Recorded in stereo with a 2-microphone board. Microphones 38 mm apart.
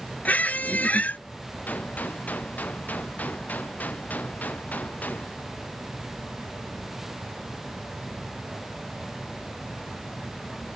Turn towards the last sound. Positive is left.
turn(degrees=45)  # may be behind; listen again after turning